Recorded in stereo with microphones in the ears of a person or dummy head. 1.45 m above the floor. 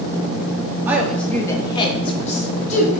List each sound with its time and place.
0.9 s a woman speaking: 10° right (ahead or behind), 0.6 m; by 3.0 s 45° left (ahead or behind), 1.4 m